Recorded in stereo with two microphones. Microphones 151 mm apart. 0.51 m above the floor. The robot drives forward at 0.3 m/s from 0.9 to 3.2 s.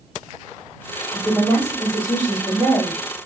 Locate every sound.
1.1 s a woman speaking: 15° left (ahead or behind), 1.2 m; by 3.2 s 10° left (ahead or behind), 1.7 m